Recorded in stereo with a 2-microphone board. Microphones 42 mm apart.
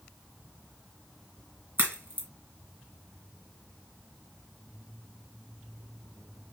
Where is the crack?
55° right (ahead or behind), 2 m.